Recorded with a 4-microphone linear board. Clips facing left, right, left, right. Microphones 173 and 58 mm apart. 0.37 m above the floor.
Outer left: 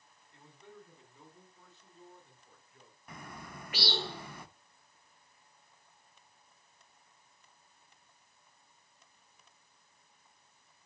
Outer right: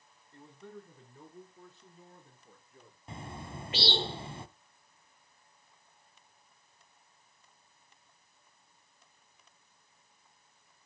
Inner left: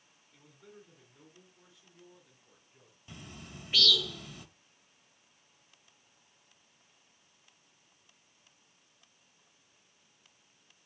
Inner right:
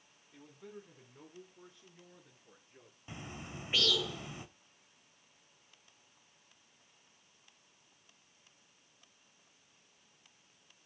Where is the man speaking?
45° right (ahead or behind), 2 m; by 3.0 s 50° right (ahead or behind), 5 m.